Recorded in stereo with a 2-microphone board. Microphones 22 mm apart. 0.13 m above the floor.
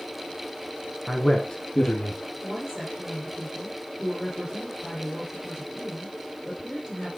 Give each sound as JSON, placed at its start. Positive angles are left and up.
{"t": 1.1, "sound": "a man speaking", "side_deg": -10, "distance_m": 1.5}
{"t": 2.4, "sound": "a woman speaking", "side_deg": -45, "distance_m": 4.5}